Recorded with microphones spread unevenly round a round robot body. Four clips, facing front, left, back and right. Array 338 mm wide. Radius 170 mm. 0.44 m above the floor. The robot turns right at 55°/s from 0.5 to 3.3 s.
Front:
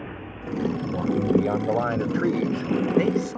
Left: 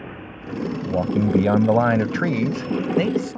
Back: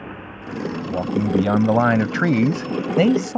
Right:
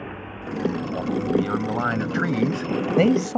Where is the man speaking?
90° left; by 3.4 s 135° right.